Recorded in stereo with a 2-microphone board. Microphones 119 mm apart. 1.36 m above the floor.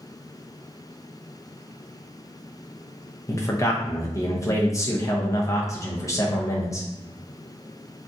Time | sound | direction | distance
3.3 | a man speaking | 25° left (ahead or behind) | 0.7 m